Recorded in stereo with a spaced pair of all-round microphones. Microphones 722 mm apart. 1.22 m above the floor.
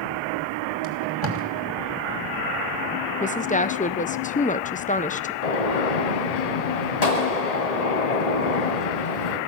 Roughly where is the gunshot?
Left.